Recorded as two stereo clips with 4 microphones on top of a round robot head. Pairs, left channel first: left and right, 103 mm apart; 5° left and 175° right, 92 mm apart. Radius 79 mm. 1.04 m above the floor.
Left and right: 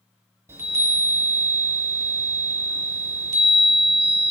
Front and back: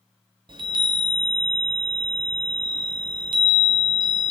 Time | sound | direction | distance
0.5 | a chime | 150° right | 0.6 m